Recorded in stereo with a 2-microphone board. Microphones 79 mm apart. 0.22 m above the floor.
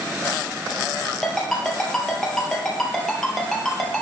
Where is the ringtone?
5° left (ahead or behind), 2.5 m.